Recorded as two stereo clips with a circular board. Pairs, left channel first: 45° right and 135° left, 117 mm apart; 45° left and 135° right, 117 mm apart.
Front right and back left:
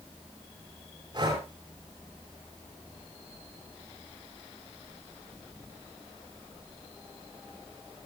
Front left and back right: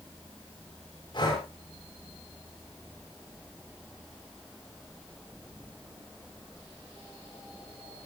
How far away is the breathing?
About 6.5 m.